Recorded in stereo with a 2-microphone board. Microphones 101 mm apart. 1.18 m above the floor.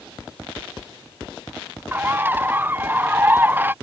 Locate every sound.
1.9 s a bird: 20° right (ahead or behind)